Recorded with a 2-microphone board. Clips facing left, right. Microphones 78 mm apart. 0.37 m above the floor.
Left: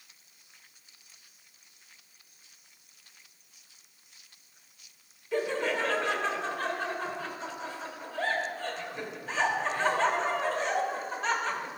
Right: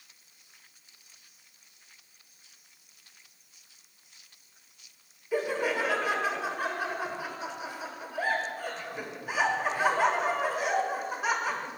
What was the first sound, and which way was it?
Laughter, 10° right (ahead or behind).